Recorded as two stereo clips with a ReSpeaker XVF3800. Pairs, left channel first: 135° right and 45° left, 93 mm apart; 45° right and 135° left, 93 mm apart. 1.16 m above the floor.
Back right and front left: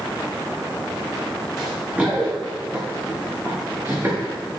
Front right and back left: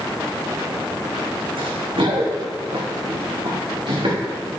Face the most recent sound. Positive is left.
turn(degrees=105)